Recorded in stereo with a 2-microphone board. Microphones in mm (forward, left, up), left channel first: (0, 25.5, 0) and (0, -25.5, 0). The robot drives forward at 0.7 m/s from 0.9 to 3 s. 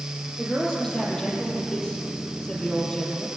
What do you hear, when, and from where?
0.4 s a woman speaking: 15° left (ahead or behind), 6.5 m